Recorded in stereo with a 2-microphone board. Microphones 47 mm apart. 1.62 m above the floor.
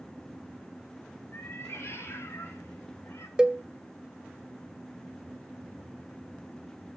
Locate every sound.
1.3 s a cat meowing: 55° left (ahead or behind), 2.5 m; by 3.3 s 65° left (ahead or behind), 3 m
3.4 s a cowbell: 15° right (ahead or behind), 0.6 m